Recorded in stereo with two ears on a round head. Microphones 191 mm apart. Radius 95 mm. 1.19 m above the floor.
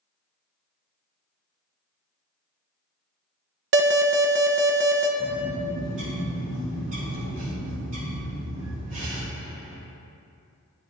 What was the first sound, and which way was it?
An alarm, 55° right (ahead or behind).